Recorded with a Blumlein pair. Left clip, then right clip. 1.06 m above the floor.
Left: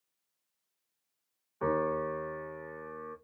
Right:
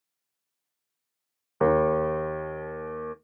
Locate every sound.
1.6 s a piano: 45° right, 0.5 m